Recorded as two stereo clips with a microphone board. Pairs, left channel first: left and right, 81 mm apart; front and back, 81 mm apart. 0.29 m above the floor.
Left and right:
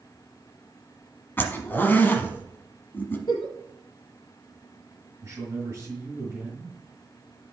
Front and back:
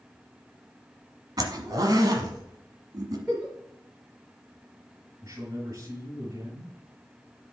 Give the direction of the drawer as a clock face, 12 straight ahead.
No drawer in this recording.